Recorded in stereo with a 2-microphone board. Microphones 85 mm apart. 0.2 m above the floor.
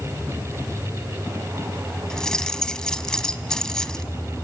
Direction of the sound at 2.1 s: 10° left (ahead or behind).